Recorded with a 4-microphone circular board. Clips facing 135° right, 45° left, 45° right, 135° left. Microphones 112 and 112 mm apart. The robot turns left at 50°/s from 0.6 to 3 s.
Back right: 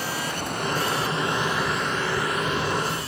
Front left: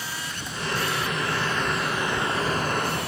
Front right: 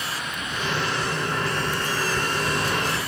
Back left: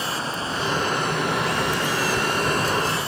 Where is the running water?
170° right; by 3.1 s 70° left.